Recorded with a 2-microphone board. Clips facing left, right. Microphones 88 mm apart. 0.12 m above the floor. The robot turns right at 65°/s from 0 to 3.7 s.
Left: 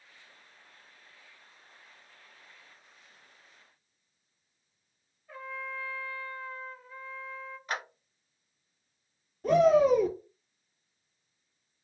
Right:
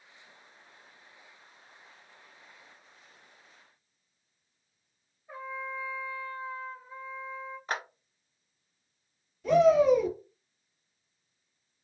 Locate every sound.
5.3 s a trumpet: 25° right (ahead or behind), 1.0 m
7.7 s a clap: 35° right (ahead or behind), 1.6 m
9.4 s a shout: 45° left (ahead or behind), 2 m